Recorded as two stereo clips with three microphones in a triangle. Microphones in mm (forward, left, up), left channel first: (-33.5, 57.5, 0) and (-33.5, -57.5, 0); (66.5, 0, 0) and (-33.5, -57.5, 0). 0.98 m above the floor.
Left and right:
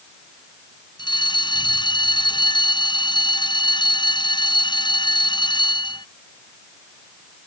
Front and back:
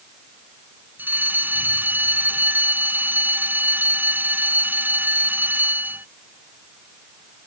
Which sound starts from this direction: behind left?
A fire alarm, at 1.0 s.